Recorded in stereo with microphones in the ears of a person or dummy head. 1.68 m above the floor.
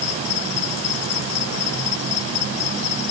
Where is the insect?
80° left.